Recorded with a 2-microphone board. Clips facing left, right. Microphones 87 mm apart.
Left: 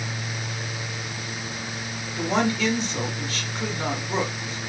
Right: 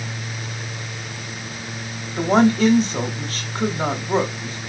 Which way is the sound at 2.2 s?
45° right (ahead or behind).